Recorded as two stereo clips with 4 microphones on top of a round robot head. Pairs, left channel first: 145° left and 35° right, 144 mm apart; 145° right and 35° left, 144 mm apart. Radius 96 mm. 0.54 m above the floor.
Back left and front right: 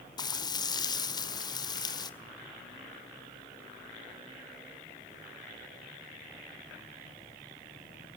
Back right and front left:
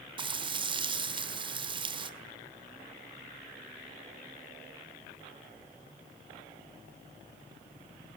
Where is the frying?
85° left, 1.8 m.